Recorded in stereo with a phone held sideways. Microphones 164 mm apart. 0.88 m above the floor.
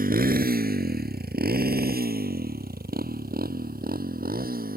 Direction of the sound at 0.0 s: 70° right (ahead or behind).